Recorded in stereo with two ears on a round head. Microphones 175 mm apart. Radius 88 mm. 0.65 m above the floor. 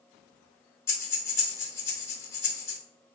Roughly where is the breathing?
Centre.